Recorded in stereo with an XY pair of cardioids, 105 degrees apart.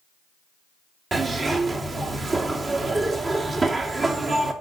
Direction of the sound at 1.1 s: 40° right.